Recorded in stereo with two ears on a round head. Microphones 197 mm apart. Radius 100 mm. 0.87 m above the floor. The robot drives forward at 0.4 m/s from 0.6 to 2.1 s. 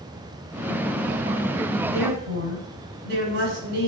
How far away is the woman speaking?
About 6 m.